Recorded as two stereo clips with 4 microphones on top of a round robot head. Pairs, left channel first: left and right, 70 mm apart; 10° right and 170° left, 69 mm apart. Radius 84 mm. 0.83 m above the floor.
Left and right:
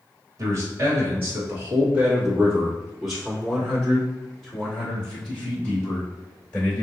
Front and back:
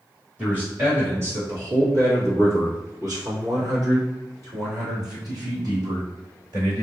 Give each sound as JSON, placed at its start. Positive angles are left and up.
{"t": 0.4, "sound": "a man speaking", "azimuth_deg": -125, "distance_m": 1.5}